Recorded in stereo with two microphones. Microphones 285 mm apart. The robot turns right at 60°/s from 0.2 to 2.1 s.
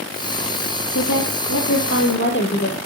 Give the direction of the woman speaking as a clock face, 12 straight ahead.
10 o'clock.